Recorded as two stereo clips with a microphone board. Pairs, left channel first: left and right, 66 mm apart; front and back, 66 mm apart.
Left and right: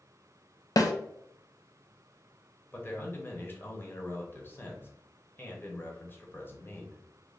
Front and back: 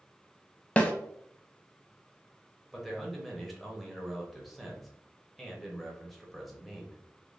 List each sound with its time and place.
0.8 s a snare drum: 70° left, 0.5 m
2.7 s a man speaking: 85° left, 0.9 m